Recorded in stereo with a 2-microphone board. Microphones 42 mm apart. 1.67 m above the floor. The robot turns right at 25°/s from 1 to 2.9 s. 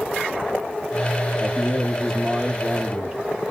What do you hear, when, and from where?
1.4 s a man speaking: 160° left, 0.8 m; by 3.2 s 160° right, 0.8 m